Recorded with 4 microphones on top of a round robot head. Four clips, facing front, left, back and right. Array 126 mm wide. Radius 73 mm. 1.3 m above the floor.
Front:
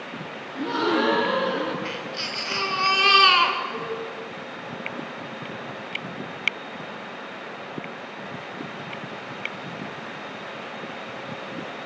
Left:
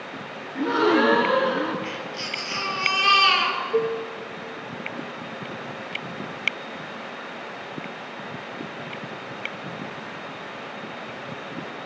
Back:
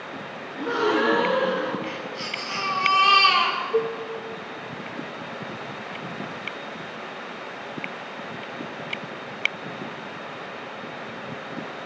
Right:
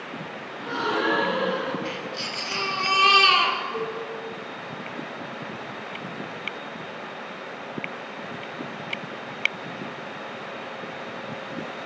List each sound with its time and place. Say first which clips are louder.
0.6 s a gasp: left 7 dB, back 1 dB; 70° left, 3.5 m
1.9 s a baby crying: even, even; 15° right, 2.5 m
3.7 s dishes clattering: left 7 dB, back 7 dB; 115° left, 1.7 m